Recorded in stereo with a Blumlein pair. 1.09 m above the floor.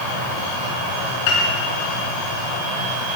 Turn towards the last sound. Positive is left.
turn(degrees=50)